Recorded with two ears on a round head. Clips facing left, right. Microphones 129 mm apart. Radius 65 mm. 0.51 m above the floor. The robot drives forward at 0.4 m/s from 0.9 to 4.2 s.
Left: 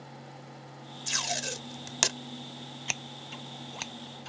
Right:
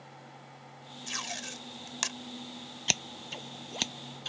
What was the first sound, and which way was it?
Tape being pulled, 55° left (ahead or behind).